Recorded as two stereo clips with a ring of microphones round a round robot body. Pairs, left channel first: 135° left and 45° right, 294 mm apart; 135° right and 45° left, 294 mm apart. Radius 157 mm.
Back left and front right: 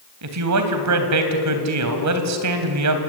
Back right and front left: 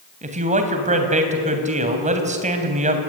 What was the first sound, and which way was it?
A man speaking, 20° right.